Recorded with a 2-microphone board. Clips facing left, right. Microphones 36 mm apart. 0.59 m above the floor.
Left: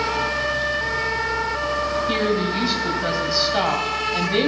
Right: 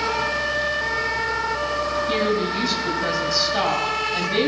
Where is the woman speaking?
10° left (ahead or behind), 3.5 m.